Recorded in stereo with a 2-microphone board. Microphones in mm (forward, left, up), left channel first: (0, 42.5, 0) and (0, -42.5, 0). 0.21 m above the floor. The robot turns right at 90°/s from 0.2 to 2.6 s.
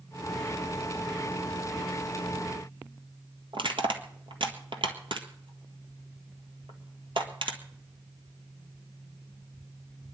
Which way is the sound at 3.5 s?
75° right (ahead or behind).